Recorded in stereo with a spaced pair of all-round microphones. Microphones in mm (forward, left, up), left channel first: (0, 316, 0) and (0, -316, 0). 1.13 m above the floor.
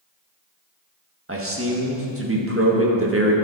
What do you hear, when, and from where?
1.3 s a man speaking: 20° right (ahead or behind), 1.6 m